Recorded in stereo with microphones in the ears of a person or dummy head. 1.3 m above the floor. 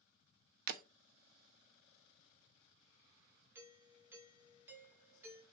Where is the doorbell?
10° right (ahead or behind), 3 m.